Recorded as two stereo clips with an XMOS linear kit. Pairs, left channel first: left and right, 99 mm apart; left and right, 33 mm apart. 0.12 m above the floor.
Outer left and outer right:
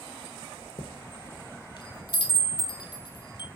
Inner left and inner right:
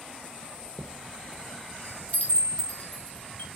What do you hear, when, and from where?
0.8 s a chime: 45° left (ahead or behind), 0.6 m